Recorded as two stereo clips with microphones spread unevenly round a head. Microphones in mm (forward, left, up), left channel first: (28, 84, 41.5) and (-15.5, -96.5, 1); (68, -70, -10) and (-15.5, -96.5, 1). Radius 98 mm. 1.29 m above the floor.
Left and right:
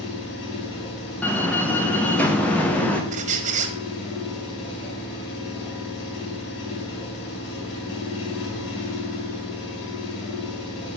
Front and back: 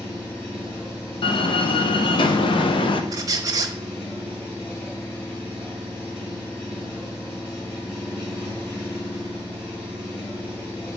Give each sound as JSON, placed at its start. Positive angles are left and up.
{"t": 0.0, "sound": "an engine running", "azimuth_deg": 105, "distance_m": 2.5}
{"t": 1.2, "sound": "a door slam", "azimuth_deg": -5, "distance_m": 0.9}
{"t": 3.1, "sound": "a squeak", "azimuth_deg": -160, "distance_m": 0.7}